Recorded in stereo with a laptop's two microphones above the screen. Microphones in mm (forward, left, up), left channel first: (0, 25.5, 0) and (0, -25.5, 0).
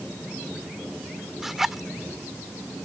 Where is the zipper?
5° right (ahead or behind).